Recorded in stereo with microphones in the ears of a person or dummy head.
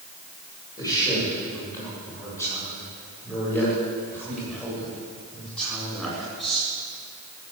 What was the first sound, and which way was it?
A man speaking, 20° left (ahead or behind).